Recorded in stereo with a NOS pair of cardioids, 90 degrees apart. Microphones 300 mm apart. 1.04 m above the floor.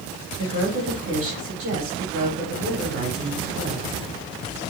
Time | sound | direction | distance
0.4 | a woman speaking | 45° right | 4 m